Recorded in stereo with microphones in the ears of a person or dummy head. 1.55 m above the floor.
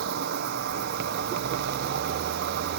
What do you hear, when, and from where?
0.0 s an insect: 60° right (ahead or behind)